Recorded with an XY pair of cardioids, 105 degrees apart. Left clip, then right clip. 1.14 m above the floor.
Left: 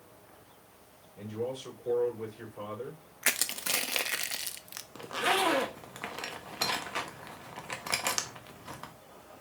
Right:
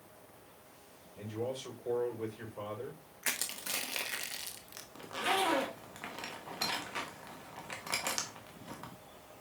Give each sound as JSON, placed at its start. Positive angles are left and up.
{"t": 1.2, "sound": "a man speaking", "azimuth_deg": -5, "distance_m": 4.0}
{"t": 3.2, "sound": "crushing", "azimuth_deg": 50, "distance_m": 0.8}
{"t": 5.0, "sound": "a zipper", "azimuth_deg": 35, "distance_m": 1.0}